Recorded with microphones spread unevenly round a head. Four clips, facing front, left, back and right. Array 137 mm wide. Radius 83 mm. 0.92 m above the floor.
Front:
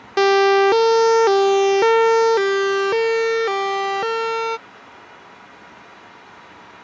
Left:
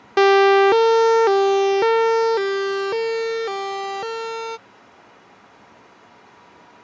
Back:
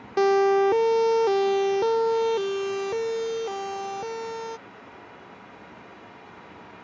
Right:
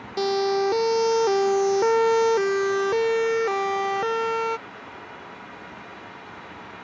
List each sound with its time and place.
0.2 s a siren: 50° left; by 4.6 s 5° right